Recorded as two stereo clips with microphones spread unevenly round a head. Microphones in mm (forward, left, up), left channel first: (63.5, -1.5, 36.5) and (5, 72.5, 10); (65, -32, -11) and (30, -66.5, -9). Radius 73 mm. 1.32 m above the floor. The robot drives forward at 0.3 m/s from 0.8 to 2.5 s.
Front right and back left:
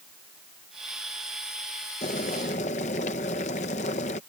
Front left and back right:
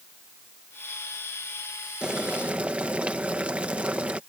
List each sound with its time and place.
2.0 s boiling: 65° right; by 4.2 s 70° right